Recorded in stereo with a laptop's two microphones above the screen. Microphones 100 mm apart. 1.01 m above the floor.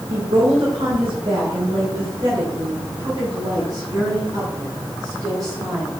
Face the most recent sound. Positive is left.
turn(degrees=-40)  # may be behind; listen again after turning